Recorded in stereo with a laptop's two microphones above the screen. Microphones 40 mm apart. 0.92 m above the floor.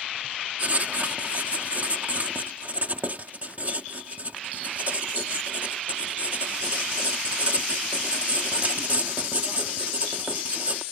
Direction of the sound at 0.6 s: 45° right (ahead or behind).